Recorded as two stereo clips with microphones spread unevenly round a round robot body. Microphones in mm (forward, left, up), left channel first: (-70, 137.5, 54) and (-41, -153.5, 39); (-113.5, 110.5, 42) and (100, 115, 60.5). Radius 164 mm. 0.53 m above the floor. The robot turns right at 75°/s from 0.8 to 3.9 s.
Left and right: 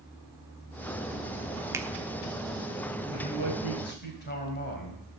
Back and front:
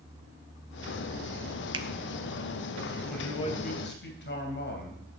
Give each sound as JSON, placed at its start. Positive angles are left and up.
{"t": 1.7, "sound": "a finger snap", "azimuth_deg": -35, "distance_m": 0.6}
{"t": 3.1, "sound": "a man speaking", "azimuth_deg": 90, "distance_m": 3.0}